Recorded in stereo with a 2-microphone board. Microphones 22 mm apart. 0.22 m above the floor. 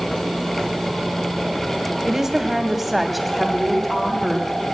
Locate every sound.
2.1 s a woman speaking: 20° right (ahead or behind), 1.2 m; by 4.7 s 20° left (ahead or behind), 1.7 m